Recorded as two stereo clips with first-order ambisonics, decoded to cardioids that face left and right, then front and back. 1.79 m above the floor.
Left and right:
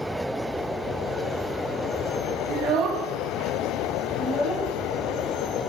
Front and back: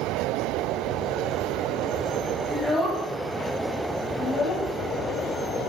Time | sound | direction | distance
2.5 | a child speaking | 90° right | 1.0 m